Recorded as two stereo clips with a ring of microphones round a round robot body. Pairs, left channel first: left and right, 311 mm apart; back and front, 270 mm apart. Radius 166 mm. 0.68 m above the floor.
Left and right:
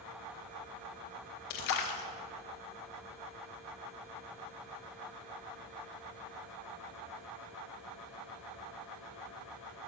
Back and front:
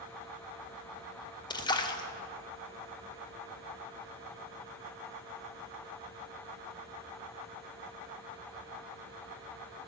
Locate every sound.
1.5 s a splash: 105° left, 1.3 m